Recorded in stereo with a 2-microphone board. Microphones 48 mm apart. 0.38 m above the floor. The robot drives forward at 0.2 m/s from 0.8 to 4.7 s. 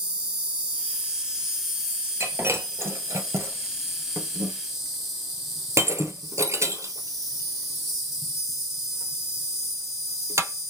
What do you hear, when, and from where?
0.0 s an insect: 20° right (ahead or behind), 0.8 m; by 10.7 s 10° right (ahead or behind), 1.6 m
2.2 s breaking glass: 70° right (ahead or behind), 1.0 m; by 10.7 s 75° right (ahead or behind), 1.0 m